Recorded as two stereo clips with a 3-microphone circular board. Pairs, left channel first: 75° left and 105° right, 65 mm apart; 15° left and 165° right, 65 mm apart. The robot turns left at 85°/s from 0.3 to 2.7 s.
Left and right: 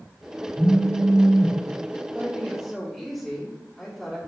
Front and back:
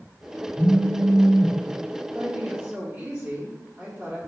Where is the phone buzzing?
90° left, 1.6 m; by 1.6 s 5° left, 1.6 m.